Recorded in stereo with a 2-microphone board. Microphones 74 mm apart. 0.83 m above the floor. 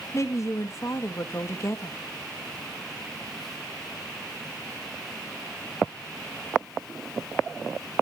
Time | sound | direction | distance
0.1 | a woman speaking | 40° left (ahead or behind) | 1.0 m